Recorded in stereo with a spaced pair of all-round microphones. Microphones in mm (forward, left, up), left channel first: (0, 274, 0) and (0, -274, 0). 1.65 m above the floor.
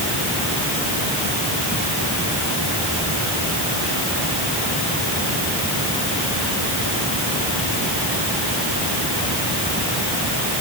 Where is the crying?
No crying in this recording.